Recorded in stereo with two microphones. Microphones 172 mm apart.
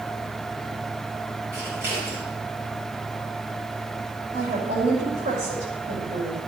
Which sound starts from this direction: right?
A woman speaking, at 4.3 s.